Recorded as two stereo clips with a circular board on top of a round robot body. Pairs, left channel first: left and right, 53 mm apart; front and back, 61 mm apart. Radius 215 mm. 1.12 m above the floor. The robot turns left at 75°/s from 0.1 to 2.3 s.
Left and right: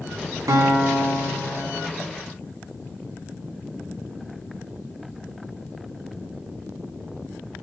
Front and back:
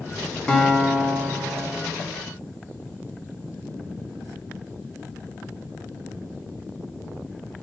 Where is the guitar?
75° right, 0.8 m; by 1.8 s 175° right, 0.8 m.